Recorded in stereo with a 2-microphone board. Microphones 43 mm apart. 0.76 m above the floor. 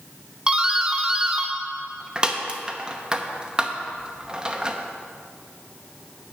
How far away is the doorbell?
About 0.8 m.